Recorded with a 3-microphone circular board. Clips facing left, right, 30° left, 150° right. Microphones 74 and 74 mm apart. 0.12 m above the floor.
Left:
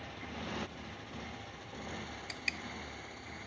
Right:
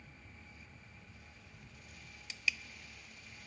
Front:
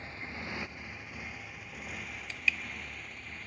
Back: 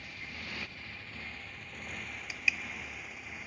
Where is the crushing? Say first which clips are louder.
Right 4 dB, front 1 dB; 130° left.